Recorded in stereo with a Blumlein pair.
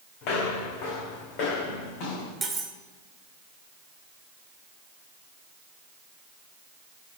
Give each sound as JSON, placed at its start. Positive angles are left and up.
{"t": 0.2, "sound": "footsteps", "azimuth_deg": 45, "distance_m": 4.0}
{"t": 2.4, "sound": "cutlery clinking", "azimuth_deg": -10, "distance_m": 1.9}